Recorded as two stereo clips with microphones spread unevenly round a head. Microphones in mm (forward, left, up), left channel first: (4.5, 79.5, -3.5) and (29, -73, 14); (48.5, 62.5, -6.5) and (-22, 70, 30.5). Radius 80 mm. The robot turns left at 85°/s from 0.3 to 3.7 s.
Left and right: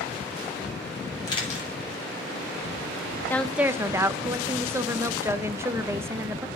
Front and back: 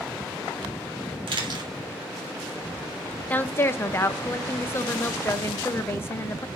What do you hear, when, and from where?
1.3 s a camera shutter: 170° left, 3.5 m; by 1.7 s 130° left, 3.5 m
3.3 s a woman speaking: 30° left, 0.7 m; by 6.5 s 5° right, 0.7 m